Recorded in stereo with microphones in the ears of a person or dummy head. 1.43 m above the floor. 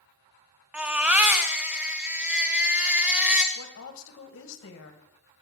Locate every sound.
0.7 s a baby crying: 5° right (ahead or behind), 0.6 m
3.5 s a woman speaking: 75° left (ahead or behind), 1.5 m